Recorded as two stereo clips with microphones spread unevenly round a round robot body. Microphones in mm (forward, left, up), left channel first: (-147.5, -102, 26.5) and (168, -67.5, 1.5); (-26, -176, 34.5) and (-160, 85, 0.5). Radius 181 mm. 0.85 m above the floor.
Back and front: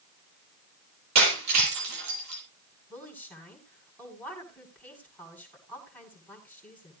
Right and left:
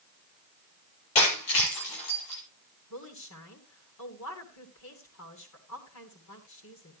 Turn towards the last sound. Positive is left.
turn(degrees=-90)